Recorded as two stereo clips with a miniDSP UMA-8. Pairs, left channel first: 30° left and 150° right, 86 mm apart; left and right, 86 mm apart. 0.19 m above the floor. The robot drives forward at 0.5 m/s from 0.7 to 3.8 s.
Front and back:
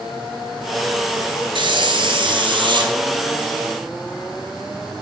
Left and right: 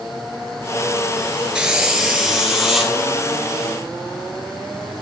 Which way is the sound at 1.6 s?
170° right.